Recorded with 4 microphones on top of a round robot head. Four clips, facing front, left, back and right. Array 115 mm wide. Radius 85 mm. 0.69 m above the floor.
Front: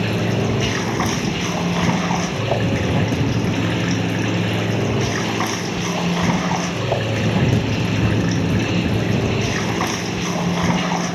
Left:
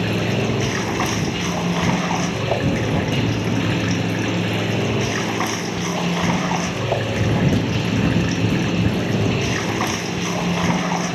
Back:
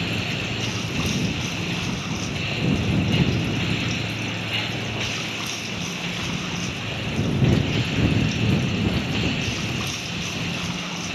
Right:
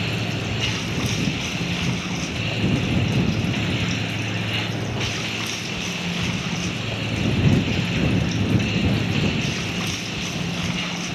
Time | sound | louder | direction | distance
0.0 | running water | left 7 dB, front 8 dB | 45° left | ?